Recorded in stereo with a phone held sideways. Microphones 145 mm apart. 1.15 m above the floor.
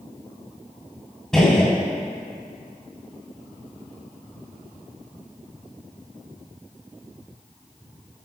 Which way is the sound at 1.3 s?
5° left (ahead or behind).